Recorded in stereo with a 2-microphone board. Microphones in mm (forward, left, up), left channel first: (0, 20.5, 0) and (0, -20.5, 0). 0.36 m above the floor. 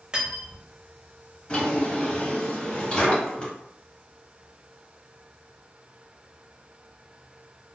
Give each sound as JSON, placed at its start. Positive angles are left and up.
{"t": 0.1, "sound": "cutlery clinking", "side_deg": -25, "distance_m": 0.9}
{"t": 1.5, "sound": "a drawer", "side_deg": 25, "distance_m": 1.3}